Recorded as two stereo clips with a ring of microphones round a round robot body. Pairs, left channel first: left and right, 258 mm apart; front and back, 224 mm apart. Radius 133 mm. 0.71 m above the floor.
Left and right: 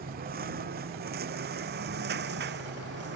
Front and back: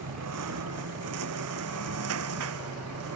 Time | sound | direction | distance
0.0 | a lawn mower | 145° right | ?